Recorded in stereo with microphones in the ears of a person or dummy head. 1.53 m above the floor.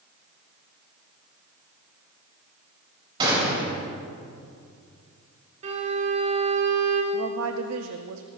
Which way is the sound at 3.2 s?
25° right (ahead or behind).